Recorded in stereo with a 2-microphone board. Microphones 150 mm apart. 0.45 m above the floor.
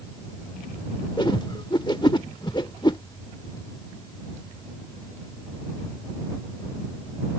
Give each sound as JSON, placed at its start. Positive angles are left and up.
{"t": 1.2, "sound": "a whoosh", "side_deg": 30}